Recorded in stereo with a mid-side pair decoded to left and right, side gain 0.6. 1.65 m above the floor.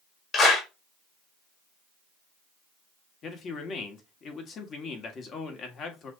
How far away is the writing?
No writing in this recording.